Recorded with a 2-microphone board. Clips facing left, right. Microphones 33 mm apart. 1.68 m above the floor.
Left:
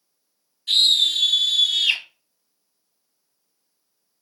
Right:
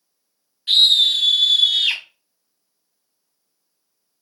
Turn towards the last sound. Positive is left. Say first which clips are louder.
# right 3 dB
turn(degrees=-30)  # may be behind; listen again after turning